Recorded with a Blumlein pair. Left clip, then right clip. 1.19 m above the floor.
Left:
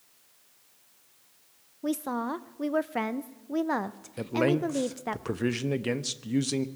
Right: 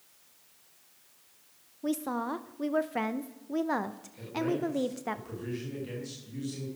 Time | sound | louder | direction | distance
1.8 | a woman speaking | left 1 dB | 5° left | 0.7 m
4.2 | a man speaking | left 5 dB | 55° left | 1.1 m